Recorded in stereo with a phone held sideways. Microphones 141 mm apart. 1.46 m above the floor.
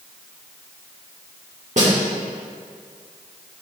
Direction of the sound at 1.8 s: 60° right (ahead or behind).